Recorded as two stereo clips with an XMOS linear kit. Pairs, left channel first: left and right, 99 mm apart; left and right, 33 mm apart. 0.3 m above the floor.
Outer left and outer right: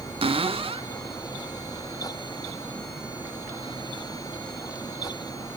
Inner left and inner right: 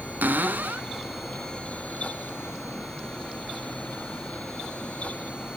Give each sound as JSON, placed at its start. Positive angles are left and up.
{"t": 0.2, "sound": "a cupboard door", "side_deg": -70, "distance_m": 0.8}